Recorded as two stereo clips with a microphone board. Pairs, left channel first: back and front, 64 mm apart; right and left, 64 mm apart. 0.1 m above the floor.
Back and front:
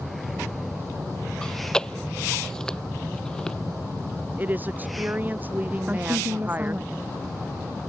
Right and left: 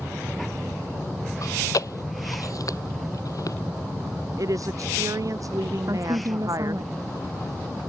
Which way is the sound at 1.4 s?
105° right.